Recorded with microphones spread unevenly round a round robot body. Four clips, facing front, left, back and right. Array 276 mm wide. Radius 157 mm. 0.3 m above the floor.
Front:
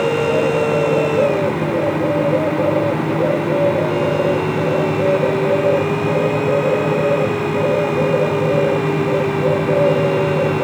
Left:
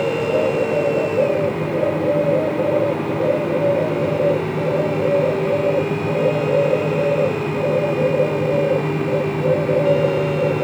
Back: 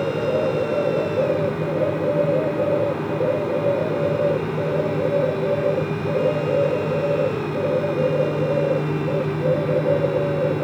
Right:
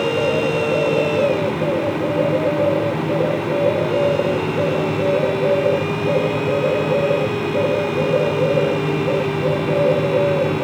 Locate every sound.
Only background noise.